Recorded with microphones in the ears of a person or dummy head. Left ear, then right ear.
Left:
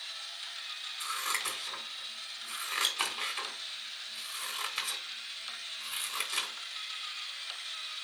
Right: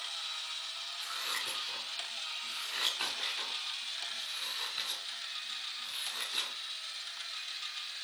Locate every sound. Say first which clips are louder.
1.0 s scissors: left 3 dB; 45° left (ahead or behind), 2.5 m